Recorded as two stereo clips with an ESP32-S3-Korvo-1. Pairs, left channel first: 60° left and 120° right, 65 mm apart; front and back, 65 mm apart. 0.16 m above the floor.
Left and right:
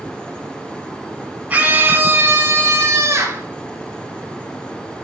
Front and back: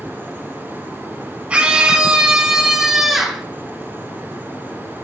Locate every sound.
1.5 s a scream: 140° right, 1.1 m; by 3.5 s 95° right, 1.9 m